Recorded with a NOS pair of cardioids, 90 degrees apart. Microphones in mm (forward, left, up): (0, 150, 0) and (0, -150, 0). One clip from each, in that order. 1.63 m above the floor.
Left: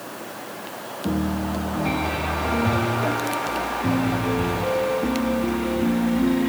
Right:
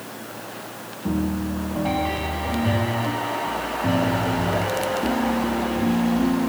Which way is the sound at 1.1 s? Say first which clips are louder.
Even; straight ahead.